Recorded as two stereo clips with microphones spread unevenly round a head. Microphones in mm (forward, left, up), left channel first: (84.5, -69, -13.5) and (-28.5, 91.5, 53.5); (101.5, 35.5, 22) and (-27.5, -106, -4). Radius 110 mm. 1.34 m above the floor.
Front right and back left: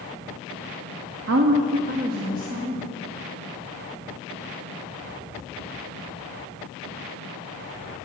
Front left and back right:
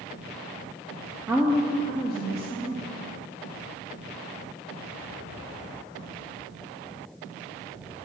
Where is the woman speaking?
150° left, 0.7 m; by 2.9 s 175° right, 2 m.